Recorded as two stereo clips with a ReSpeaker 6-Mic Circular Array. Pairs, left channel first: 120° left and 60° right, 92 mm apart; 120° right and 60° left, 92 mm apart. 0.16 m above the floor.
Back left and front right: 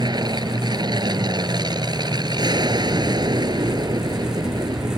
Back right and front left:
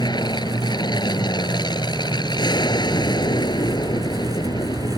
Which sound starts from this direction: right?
An aircraft, at 0.0 s.